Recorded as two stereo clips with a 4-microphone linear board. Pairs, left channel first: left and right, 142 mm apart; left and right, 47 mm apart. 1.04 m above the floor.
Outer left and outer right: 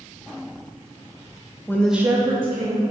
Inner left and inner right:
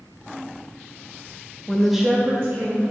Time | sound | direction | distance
1.7 | a woman speaking | 20° left (ahead or behind) | 0.6 m